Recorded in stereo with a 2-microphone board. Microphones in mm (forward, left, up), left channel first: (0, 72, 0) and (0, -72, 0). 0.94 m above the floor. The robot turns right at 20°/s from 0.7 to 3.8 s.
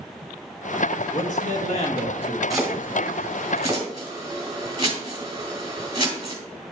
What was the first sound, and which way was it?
A man speaking, 55° left (ahead or behind).